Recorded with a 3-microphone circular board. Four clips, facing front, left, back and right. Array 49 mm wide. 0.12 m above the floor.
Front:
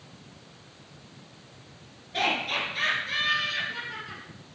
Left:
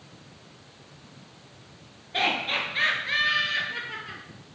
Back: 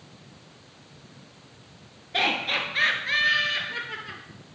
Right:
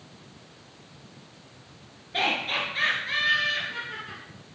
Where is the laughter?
170° left, 1.8 m; by 4.2 s 155° left, 2.5 m.